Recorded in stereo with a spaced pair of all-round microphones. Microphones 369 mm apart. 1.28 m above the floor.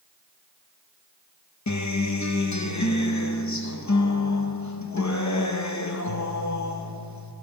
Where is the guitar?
50° left (ahead or behind), 0.7 m.